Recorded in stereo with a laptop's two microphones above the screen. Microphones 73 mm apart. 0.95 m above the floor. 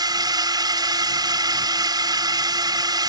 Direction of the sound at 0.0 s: 65° right (ahead or behind).